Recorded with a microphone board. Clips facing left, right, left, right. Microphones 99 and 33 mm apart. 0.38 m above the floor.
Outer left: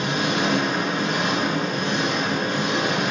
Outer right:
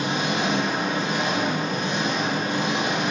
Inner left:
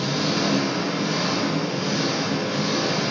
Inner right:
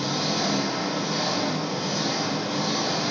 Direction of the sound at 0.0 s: 70° left (ahead or behind).